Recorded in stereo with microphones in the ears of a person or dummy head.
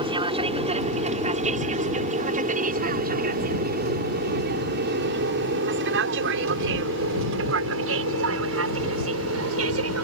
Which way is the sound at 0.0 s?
25° right (ahead or behind).